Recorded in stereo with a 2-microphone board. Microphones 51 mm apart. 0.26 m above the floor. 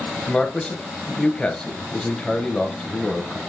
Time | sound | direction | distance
0.3 | a man speaking | 15° left (ahead or behind) | 1.1 m